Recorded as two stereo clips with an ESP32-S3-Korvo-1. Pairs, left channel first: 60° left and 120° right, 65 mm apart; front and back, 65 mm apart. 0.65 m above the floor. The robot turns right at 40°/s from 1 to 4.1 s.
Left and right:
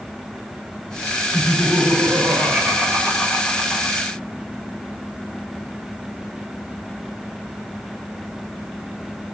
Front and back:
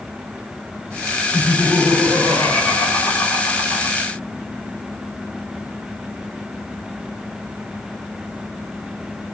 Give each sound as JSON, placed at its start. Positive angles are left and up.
{"t": 1.3, "sound": "laughter", "azimuth_deg": -85, "distance_m": 1.8}